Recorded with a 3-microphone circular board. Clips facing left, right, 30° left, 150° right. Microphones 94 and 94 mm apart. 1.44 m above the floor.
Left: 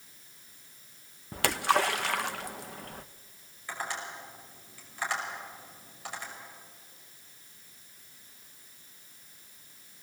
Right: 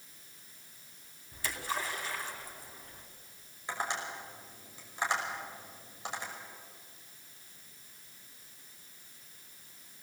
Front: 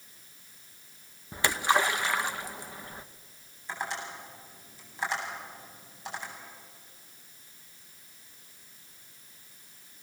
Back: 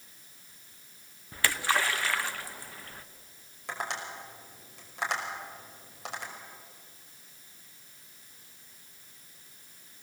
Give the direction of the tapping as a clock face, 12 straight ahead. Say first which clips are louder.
Right 1 dB, even; 5 o'clock.